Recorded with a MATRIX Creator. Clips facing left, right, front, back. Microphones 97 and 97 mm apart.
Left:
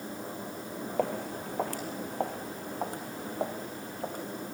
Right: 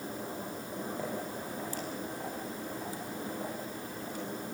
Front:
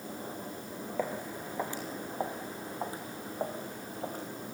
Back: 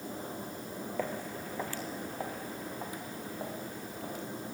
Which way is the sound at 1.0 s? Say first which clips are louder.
Left 5 dB, front 2 dB; 80° left.